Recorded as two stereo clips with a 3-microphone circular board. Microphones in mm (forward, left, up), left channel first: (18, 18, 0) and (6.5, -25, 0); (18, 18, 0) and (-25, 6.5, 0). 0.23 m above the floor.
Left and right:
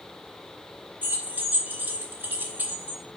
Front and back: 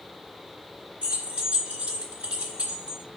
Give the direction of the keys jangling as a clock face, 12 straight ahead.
4 o'clock.